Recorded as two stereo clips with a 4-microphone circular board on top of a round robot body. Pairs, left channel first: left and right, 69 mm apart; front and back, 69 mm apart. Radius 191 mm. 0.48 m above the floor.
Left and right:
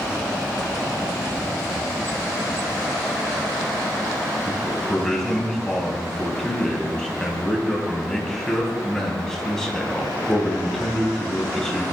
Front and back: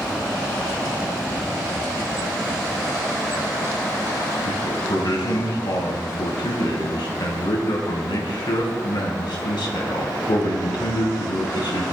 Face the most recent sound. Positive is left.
turn(degrees=10)